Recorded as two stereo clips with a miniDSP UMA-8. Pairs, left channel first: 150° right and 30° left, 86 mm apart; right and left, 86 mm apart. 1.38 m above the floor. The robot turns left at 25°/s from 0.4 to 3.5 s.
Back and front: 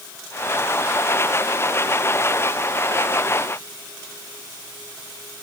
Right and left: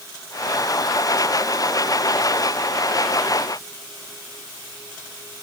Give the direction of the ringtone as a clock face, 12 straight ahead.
No ringtone in this recording.